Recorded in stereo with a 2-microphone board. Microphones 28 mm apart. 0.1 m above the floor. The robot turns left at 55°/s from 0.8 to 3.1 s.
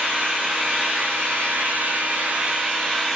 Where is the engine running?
40° right, 7.5 m; by 3.2 s 170° right, 7.5 m.